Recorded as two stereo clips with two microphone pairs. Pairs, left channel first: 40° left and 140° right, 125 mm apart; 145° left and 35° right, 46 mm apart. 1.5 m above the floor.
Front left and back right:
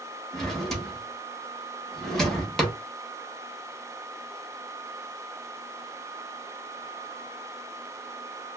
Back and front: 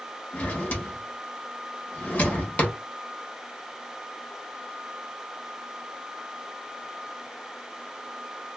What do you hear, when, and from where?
0.3 s a drawer: 125° left, 1.0 m